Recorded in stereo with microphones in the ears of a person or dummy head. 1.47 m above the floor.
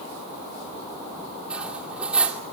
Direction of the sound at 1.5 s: 5° right (ahead or behind).